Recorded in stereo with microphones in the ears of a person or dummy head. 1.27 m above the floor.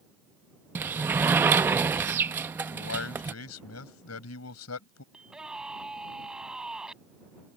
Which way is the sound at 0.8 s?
15° right (ahead or behind).